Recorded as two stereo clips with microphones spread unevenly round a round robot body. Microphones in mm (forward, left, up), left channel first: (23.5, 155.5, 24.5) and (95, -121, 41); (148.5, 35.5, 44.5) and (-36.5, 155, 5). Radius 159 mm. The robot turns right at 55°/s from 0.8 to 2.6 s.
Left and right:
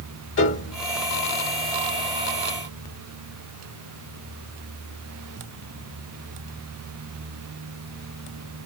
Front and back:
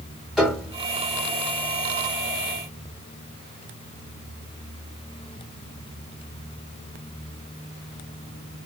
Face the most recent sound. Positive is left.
turn(degrees=155)